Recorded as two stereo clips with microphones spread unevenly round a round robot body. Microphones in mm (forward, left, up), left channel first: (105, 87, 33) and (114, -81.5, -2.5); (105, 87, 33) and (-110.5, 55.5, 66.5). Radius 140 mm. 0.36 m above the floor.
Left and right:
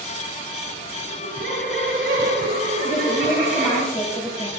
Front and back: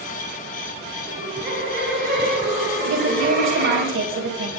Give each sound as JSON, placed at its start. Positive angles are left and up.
{"t": 1.0, "sound": "laughter", "azimuth_deg": -115, "distance_m": 9.5}
{"t": 2.8, "sound": "a woman speaking", "azimuth_deg": 180, "distance_m": 2.5}